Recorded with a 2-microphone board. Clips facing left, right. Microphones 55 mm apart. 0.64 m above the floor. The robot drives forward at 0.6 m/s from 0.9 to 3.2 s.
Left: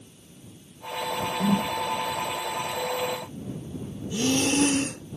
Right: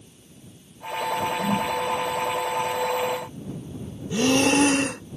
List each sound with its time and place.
1.4 s a whoosh: 85° left
4.1 s breathing: 85° right